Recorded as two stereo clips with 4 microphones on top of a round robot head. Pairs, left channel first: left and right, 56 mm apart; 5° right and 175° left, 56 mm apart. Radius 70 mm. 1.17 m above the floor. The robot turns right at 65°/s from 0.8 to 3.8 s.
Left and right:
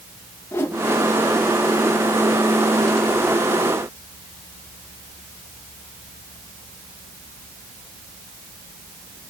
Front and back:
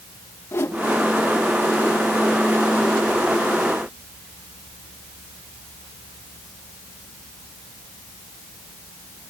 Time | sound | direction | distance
0.5 | a whoosh | 40° left | 1.3 m